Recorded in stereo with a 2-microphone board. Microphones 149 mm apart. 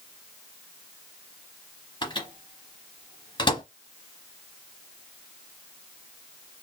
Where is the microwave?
35° left (ahead or behind), 0.9 m.